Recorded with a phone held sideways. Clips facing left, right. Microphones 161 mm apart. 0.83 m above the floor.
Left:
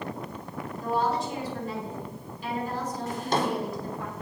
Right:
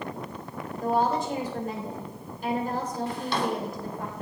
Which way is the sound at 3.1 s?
45° left (ahead or behind).